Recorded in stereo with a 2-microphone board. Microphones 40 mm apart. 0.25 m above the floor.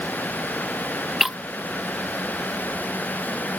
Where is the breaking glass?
5° right (ahead or behind).